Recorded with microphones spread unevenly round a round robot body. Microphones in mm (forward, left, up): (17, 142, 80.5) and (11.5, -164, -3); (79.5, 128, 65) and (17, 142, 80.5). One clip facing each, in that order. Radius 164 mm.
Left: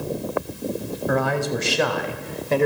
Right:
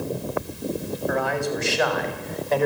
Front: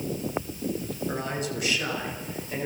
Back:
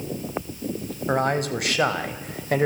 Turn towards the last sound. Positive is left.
turn(degrees=155)